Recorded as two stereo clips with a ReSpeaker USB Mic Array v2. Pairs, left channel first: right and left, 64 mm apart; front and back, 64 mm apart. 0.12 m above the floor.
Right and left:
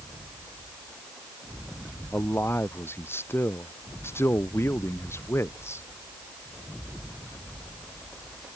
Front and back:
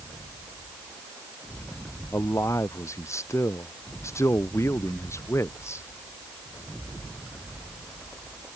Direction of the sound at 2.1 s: 40° right.